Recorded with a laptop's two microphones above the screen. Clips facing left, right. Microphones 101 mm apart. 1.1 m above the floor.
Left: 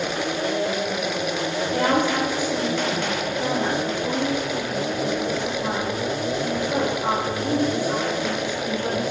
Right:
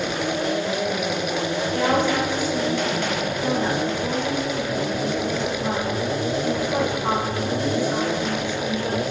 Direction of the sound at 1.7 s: 65° left (ahead or behind).